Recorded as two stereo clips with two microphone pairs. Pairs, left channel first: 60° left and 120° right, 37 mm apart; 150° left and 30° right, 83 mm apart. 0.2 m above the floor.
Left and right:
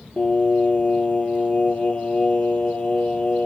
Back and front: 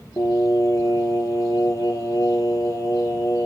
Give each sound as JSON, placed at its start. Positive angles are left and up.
{"t": 0.2, "sound": "singing", "azimuth_deg": 105, "distance_m": 5.0}